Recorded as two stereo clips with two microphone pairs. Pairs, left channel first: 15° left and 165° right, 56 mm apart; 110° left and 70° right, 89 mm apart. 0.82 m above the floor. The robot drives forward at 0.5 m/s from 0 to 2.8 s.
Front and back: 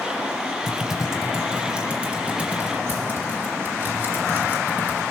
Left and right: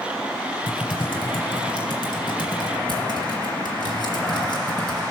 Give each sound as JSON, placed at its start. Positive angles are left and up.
{"t": 0.7, "sound": "typing on a keyboard", "azimuth_deg": 105, "distance_m": 1.3}